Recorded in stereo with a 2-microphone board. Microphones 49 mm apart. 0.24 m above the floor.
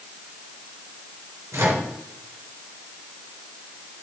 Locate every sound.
1.5 s a microwave: 70° right (ahead or behind), 3.5 m